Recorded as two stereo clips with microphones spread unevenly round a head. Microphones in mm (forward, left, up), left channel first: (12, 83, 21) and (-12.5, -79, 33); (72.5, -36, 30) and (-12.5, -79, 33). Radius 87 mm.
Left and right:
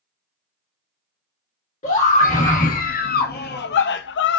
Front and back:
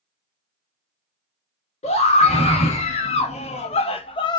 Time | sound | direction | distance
1.8 | a scream | 30° left | 1.6 m